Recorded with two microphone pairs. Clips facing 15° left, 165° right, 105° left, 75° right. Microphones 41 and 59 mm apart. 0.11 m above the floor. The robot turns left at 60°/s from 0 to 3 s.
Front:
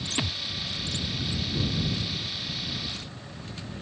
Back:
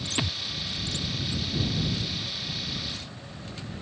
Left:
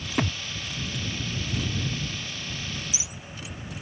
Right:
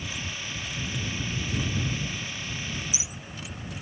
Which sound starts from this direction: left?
A thud, at 0.2 s.